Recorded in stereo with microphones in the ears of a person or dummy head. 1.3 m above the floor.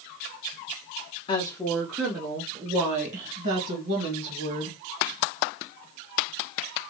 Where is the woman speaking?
30° left (ahead or behind), 0.6 m; by 4.8 s 45° right (ahead or behind), 1.9 m.